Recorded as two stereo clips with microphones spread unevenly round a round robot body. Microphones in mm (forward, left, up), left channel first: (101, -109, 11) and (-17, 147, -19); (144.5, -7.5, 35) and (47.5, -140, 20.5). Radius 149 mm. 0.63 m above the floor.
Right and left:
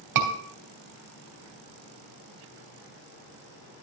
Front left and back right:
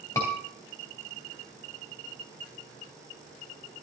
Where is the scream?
135° left, 3 m.